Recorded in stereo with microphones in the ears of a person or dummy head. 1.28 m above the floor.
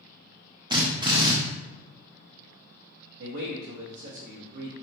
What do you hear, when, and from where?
0.7 s a drill: 20° right (ahead or behind), 0.5 m
3.2 s a man speaking: 60° right (ahead or behind), 0.7 m